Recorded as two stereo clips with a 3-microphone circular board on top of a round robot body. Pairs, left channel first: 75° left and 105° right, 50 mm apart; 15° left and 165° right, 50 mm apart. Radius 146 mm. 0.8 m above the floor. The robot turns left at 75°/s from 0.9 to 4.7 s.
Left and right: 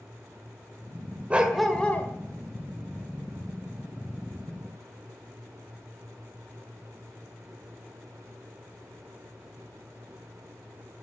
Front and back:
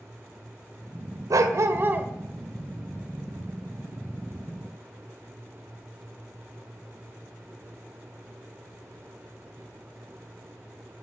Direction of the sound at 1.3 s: 170° right.